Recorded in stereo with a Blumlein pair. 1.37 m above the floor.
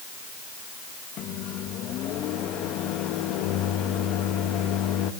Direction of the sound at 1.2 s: 35° left.